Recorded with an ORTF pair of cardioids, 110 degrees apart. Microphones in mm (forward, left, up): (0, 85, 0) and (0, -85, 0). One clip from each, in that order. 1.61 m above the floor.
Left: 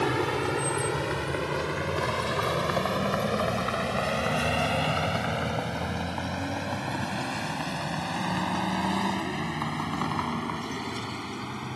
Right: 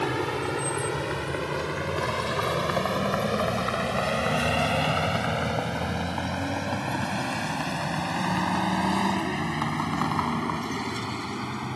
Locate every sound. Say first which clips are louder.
0.0 s a vehicle: left 1 dB; 10° left; by 11.8 s 20° right